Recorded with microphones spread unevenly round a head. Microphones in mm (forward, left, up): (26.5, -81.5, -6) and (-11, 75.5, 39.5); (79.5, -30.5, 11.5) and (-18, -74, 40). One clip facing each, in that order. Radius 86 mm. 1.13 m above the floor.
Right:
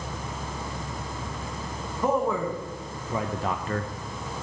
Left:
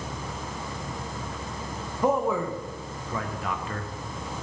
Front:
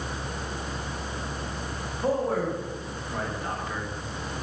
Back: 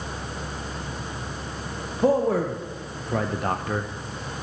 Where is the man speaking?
175° right, 1.1 m; by 3.9 s 105° right, 0.6 m.